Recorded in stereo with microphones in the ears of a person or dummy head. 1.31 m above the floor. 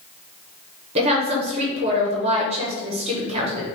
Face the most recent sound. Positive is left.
turn(degrees=-30)  # may be behind; listen again after turning